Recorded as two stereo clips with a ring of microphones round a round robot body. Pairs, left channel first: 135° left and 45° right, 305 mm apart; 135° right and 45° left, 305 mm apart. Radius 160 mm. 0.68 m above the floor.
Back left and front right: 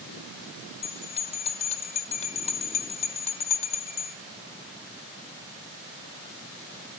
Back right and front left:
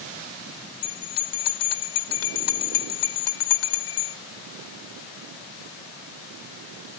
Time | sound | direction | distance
0.8 | a bell | 155° right | 1.5 m